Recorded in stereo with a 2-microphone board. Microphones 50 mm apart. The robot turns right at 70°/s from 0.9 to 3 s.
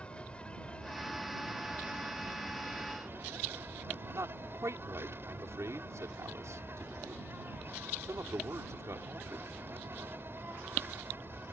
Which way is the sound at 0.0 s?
155° left.